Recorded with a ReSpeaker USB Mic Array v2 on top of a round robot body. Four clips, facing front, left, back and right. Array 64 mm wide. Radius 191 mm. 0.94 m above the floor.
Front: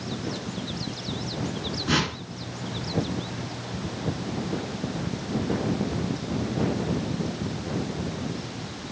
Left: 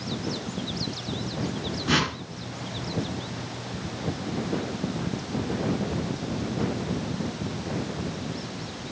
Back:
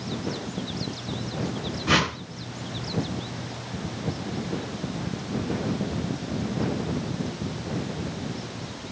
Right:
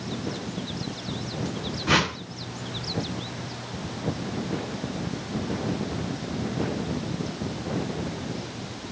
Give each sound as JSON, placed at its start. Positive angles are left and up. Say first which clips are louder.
{"t": 1.9, "sound": "a whoosh", "louder": "right 2 dB, back 3 dB", "azimuth_deg": -125, "distance_m": 2.0}